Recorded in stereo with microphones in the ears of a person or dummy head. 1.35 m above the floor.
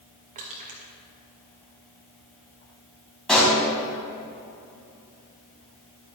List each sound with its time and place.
0.3 s crushing: 35° right (ahead or behind), 1.8 m
3.3 s a pop: 5° left (ahead or behind), 3 m